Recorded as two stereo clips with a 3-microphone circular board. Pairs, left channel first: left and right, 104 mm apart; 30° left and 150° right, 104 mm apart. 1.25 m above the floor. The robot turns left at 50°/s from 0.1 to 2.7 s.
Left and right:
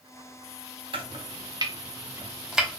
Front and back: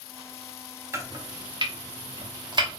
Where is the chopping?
90° right, 0.7 m; by 2.8 s straight behind, 0.7 m.